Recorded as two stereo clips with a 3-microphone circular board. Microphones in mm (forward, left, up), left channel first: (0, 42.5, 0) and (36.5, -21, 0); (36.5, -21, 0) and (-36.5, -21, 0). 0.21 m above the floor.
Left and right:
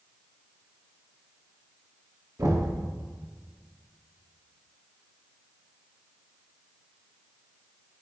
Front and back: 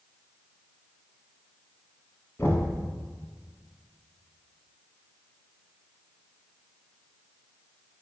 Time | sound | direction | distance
2.4 | knocking | 50° right | 1.5 m